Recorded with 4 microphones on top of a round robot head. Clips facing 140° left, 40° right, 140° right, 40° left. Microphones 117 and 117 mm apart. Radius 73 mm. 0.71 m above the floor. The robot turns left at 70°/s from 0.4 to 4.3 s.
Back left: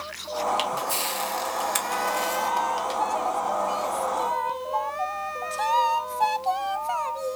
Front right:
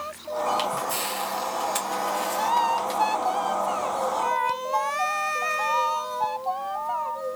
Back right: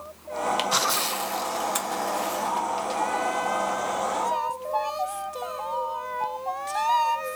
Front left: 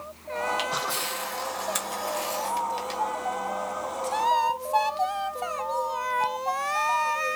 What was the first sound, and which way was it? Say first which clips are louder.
A camera shutter: even, back right 4 dB; 145° right.